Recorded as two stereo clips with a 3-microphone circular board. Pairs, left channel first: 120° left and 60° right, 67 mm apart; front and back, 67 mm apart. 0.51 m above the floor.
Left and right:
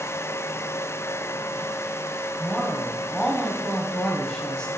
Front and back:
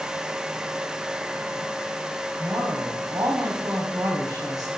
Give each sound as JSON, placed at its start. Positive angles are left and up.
{"t": 2.4, "sound": "a woman speaking", "azimuth_deg": -160, "distance_m": 3.0}